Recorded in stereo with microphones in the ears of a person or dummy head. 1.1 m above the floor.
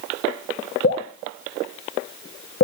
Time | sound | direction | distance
0.8 | dripping | 55° left (ahead or behind) | 1.1 m